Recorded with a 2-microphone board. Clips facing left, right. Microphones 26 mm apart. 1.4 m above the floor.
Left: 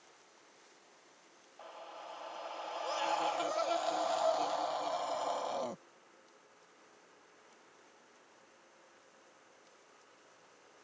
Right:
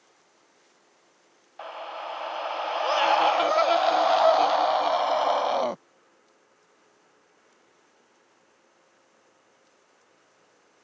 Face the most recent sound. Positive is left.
turn(degrees=-55)  # may be behind; listen again after turning